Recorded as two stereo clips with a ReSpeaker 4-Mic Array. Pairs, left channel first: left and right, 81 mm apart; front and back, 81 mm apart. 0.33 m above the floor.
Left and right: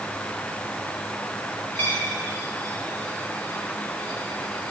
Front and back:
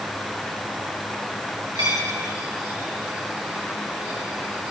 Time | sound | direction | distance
1.8 | a dropped coin | 150° left | 6.5 m